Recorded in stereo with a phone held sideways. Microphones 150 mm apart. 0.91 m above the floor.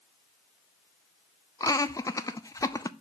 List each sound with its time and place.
1.6 s laughter: 25° left (ahead or behind), 0.6 m